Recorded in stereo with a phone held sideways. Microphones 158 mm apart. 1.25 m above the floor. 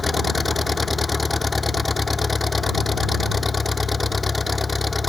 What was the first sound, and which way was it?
An engine running, centre (ahead or behind).